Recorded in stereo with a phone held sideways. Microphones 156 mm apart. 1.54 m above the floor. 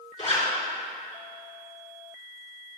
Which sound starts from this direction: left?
A zipper, at 0.2 s.